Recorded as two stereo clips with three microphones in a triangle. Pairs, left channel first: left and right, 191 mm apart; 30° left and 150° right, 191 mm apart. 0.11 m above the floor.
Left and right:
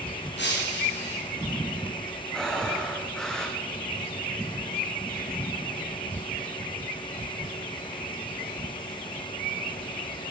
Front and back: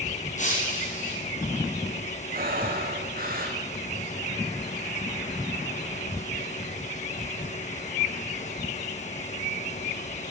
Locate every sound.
0.4 s breaking glass: 75° left, 6.5 m
2.3 s breathing: 175° left, 4.5 m